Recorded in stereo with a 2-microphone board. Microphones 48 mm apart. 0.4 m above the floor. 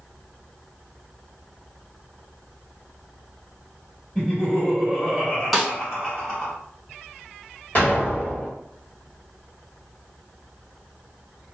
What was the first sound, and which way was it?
Laughter, 15° left (ahead or behind).